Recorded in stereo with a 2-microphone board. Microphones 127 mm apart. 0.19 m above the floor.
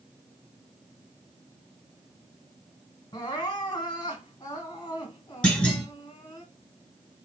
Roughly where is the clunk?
Centre.